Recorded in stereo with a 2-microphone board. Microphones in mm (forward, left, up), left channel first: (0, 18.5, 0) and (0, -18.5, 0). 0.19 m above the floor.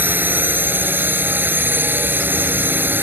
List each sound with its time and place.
0.0 s a drone: 65° right (ahead or behind)